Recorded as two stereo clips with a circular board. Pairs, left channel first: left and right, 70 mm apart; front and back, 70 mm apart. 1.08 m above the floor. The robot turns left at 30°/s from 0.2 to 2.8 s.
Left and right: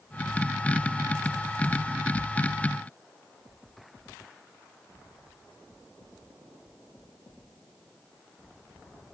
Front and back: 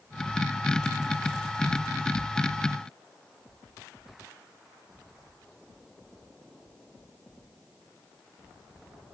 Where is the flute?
I don't hear a flute.